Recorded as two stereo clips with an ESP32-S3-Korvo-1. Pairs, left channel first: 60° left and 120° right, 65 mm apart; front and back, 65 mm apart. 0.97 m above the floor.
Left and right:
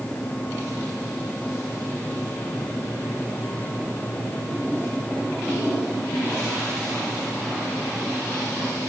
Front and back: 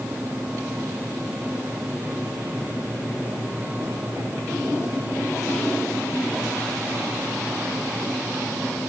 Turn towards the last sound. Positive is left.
No sound to turn to.